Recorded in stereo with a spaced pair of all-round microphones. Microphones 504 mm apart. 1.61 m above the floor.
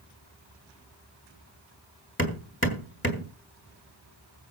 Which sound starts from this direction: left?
Hammering, at 2.2 s.